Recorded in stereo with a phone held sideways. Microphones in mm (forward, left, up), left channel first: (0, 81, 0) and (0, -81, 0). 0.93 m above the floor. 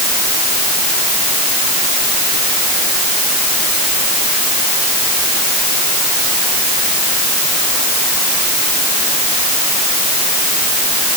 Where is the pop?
No pop in this recording.